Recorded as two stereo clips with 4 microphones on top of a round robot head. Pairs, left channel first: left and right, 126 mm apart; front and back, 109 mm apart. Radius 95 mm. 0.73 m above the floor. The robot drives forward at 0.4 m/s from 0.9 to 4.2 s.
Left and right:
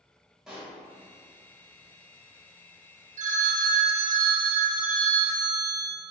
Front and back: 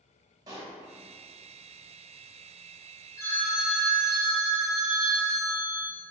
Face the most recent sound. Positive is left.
turn(degrees=-110)